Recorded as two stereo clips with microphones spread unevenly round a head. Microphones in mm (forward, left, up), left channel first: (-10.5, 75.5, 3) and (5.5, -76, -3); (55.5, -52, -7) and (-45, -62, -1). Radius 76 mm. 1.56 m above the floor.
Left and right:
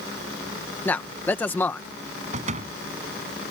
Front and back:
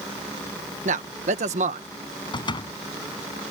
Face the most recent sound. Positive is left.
turn(degrees=-35)